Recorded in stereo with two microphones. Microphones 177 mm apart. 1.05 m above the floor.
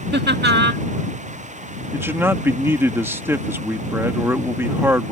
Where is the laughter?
80° right.